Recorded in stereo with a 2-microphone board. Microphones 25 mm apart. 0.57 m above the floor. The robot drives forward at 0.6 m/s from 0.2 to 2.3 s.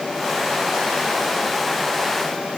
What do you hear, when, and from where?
Only background noise.